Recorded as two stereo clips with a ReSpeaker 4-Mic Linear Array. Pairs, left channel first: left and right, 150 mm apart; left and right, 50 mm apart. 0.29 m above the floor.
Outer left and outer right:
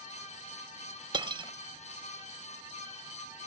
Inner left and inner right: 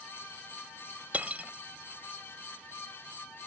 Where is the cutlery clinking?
35° right (ahead or behind), 0.6 m.